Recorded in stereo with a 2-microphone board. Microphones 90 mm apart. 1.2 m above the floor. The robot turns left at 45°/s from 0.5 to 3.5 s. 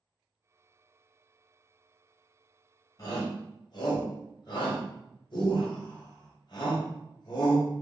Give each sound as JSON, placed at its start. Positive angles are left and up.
{"t": 3.0, "sound": "a shout", "side_deg": 45, "distance_m": 1.1}